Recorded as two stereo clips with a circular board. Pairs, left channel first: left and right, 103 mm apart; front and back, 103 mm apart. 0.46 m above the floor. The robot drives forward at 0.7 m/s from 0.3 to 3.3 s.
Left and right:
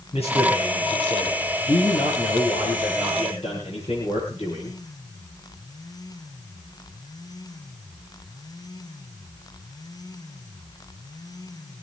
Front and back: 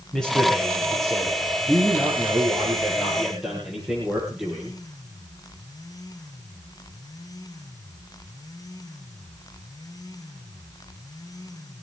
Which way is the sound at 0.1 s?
90° left.